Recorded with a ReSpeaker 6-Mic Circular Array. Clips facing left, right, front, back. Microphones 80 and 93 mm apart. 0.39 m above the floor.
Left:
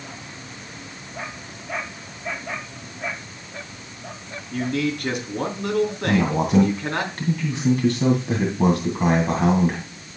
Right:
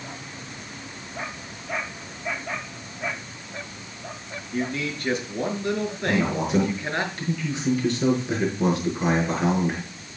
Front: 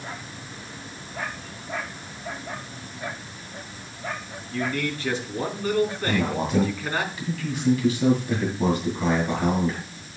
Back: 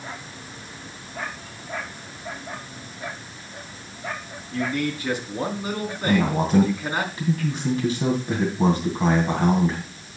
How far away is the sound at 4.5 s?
About 4 m.